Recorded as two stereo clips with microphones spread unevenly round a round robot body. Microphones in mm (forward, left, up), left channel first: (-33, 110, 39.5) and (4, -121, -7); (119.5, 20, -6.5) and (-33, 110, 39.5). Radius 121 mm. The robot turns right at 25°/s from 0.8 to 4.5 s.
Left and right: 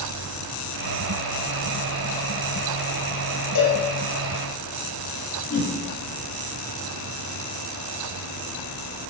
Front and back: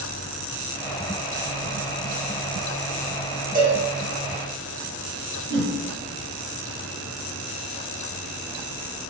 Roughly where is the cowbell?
Left.